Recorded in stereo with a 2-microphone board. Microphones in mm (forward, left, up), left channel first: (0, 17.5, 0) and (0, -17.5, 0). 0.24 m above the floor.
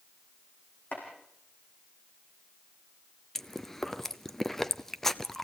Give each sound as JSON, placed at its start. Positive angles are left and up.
{"t": 0.9, "sound": "chopping", "side_deg": 55, "distance_m": 6.0}
{"t": 3.4, "sound": "chewing", "side_deg": 10, "distance_m": 0.7}